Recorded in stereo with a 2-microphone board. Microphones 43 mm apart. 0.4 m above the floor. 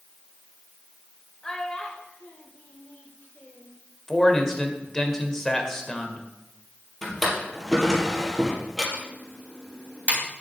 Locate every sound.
1.4 s a child speaking: 20° left (ahead or behind), 1.0 m; by 3.8 s 45° left (ahead or behind), 1.1 m
4.1 s a man speaking: 15° left (ahead or behind), 1.4 m
7.0 s a drawer: 5° left (ahead or behind), 2.5 m
8.9 s typing on a keyboard: 30° right (ahead or behind), 3 m